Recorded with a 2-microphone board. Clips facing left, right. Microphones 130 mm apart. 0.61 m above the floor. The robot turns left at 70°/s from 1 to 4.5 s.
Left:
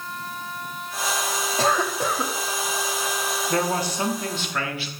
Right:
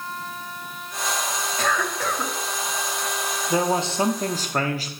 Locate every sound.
1.6 s a cough: 60° left, 1.2 m; by 2.3 s 10° left, 1.2 m
3.5 s a man speaking: 15° right, 1.1 m; by 4.9 s 85° right, 1.1 m